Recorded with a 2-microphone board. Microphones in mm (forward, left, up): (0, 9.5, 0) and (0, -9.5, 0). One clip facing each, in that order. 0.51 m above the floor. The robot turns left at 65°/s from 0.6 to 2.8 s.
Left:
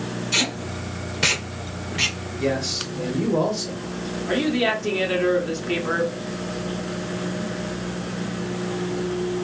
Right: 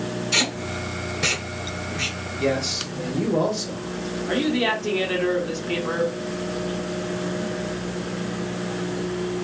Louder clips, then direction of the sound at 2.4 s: Even; 25° right (ahead or behind).